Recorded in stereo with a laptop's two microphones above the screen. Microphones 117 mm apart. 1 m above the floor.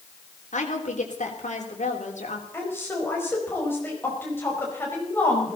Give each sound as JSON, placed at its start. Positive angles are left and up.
{"t": 0.5, "sound": "a woman speaking", "side_deg": 80, "distance_m": 3.0}
{"t": 2.5, "sound": "a woman speaking", "side_deg": 15, "distance_m": 4.5}